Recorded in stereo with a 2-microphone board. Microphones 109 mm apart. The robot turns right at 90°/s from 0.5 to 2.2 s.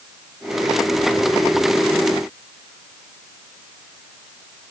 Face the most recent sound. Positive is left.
No sound to turn to.